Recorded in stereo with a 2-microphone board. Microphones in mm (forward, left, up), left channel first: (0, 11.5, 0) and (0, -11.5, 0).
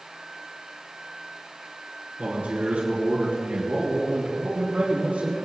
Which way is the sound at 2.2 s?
60° right (ahead or behind).